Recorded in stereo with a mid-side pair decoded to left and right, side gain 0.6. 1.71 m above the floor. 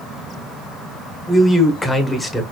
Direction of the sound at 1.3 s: 15° left.